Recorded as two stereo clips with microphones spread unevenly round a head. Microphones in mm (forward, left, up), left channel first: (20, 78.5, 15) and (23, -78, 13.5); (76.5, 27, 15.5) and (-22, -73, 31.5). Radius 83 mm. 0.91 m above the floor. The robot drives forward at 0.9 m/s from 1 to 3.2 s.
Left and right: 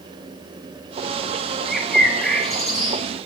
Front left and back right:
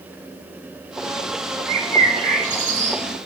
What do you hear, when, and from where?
1.7 s a bird: straight behind, 1.8 m